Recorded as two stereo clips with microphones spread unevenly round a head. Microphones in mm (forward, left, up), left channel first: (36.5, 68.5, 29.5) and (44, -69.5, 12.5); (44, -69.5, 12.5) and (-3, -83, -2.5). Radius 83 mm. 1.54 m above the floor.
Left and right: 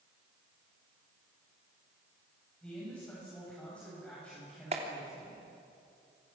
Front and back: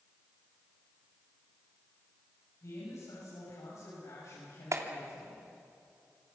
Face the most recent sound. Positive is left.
turn(degrees=-145)